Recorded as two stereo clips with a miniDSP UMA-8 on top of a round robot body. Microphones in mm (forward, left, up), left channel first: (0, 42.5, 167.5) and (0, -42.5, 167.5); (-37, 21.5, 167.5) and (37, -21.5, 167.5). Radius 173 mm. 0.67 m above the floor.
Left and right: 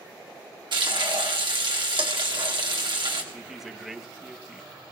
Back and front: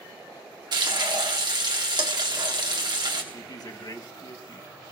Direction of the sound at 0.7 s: 70° right.